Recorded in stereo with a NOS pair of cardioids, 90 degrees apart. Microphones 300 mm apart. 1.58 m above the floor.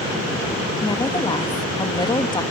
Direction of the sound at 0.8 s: 15° left.